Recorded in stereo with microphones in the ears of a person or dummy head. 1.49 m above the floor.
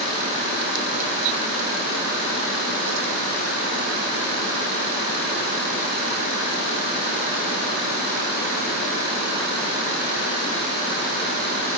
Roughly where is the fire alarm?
I don't hear a fire alarm.